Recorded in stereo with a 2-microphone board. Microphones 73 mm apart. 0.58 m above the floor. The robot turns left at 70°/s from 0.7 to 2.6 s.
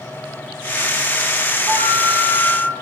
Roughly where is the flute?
Behind right.